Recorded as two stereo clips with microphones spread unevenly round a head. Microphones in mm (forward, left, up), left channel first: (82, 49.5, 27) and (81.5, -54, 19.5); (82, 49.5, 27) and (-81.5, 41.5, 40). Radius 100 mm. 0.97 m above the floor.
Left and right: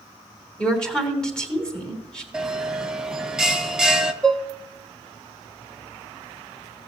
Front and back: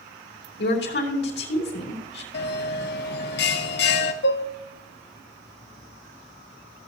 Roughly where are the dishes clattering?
Ahead.